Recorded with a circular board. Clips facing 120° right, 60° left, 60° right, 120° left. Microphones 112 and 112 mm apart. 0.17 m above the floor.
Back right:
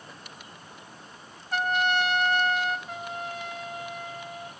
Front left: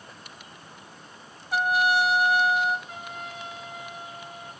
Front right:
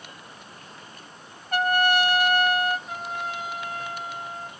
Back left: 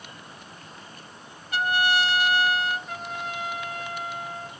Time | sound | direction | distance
1.5 | a trumpet | 25° right | 1.4 m
2.9 | a trumpet | 140° right | 10 m